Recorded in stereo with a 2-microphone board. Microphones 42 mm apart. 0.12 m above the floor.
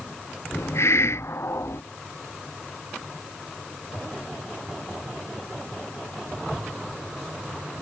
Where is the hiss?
80° left.